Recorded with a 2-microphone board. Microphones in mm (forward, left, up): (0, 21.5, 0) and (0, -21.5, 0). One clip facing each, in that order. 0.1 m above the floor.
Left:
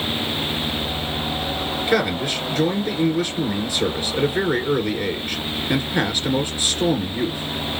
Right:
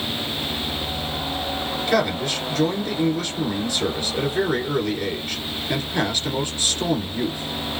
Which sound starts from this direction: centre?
A man speaking, at 1.9 s.